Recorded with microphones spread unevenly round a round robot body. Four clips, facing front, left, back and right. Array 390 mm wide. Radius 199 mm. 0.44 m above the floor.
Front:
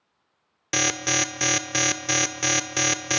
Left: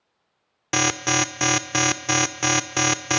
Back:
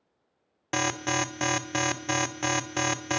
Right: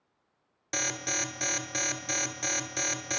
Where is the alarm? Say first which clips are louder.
Left 12 dB, front 1 dB; 95° left, 1.0 m.